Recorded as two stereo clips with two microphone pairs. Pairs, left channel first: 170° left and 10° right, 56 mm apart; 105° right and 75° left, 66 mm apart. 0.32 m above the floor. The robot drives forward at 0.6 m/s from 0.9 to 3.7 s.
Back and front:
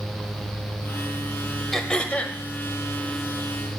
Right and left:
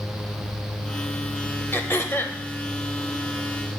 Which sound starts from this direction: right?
Throat clearing, at 1.7 s.